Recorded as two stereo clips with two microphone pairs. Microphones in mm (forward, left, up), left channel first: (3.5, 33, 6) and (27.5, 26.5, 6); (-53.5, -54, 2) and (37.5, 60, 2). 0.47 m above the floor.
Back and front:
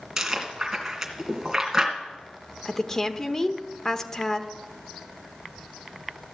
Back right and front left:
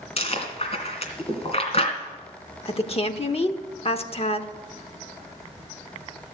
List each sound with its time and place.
0.2 s chewing: 85° right, 2.5 m
2.6 s a woman speaking: 135° right, 0.9 m